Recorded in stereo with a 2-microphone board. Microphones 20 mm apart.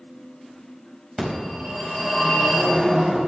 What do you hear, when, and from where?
1.2 s a phone ringing: 40° right (ahead or behind), 4 m